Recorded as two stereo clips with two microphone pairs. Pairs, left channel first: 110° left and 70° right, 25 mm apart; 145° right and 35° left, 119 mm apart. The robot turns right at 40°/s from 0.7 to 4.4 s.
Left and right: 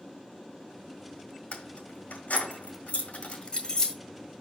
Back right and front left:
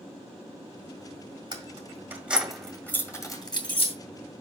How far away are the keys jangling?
About 1.8 m.